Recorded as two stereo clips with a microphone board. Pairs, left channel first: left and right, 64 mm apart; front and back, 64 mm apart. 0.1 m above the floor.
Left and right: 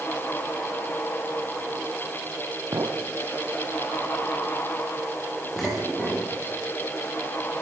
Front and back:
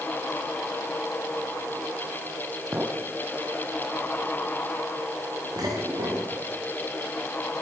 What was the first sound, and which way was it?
A clink, 115° right.